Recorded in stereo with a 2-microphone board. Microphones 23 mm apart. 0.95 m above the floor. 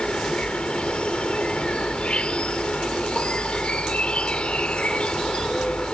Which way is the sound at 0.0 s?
50° left (ahead or behind).